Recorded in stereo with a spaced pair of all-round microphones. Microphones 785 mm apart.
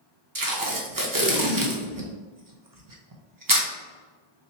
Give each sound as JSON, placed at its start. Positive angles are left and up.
{"t": 0.3, "sound": "tape being pulled", "side_deg": -30, "distance_m": 0.6}